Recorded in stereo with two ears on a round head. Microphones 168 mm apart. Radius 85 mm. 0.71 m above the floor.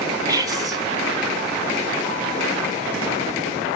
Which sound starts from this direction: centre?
Whispering, at 0.3 s.